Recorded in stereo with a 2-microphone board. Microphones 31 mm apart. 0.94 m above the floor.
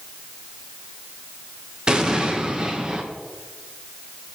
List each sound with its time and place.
1.9 s an explosion: 30° right (ahead or behind), 1.0 m